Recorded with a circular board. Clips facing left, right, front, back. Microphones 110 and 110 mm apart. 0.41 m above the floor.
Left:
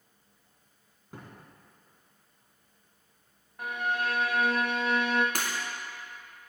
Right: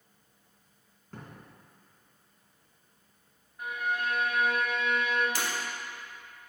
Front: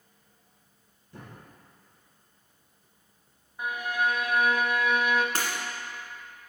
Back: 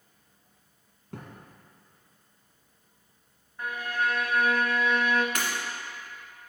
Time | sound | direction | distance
1.1 | a thud | 170° left | 1.7 m
3.6 | a violin | 75° left | 0.6 m
5.3 | breaking glass | 60° left | 1.7 m